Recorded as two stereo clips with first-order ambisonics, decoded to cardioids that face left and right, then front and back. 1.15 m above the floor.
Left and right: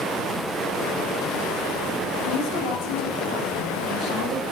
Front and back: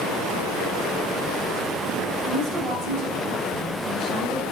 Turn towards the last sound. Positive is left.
turn(degrees=100)